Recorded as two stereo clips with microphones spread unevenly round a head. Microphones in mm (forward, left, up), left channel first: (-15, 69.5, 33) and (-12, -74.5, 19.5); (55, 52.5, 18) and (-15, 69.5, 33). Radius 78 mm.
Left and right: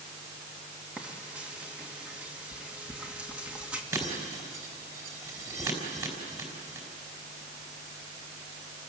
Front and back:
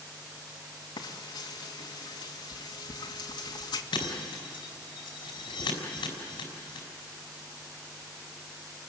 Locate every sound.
1.0 s frying: 5° right, 1.8 m
3.9 s breaking glass: 20° right, 4.5 m